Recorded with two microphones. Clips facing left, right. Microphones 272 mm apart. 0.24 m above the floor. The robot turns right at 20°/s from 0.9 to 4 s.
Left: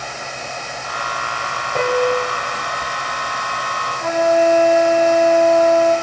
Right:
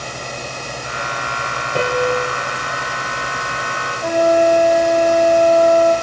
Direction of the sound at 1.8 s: 5° right (ahead or behind).